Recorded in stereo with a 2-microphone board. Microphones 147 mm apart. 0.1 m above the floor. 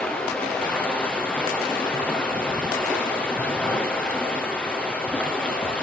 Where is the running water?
5° left (ahead or behind), 3.5 m.